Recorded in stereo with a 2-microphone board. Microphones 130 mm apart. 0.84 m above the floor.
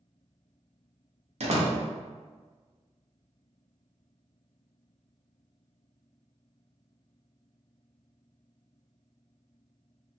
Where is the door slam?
65° right (ahead or behind), 0.7 m.